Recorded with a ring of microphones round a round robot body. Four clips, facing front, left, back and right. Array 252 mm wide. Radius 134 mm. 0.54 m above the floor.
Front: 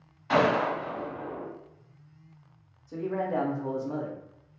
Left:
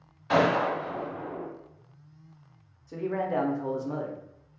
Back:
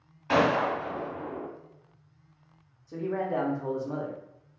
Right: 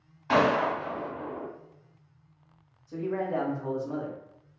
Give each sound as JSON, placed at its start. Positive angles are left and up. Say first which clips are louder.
{"t": 0.3, "sound": "a gunshot", "louder": "even, even", "azimuth_deg": -120, "distance_m": 1.8}
{"t": 2.9, "sound": "a man speaking", "louder": "left 1 dB, even", "azimuth_deg": 95, "distance_m": 0.7}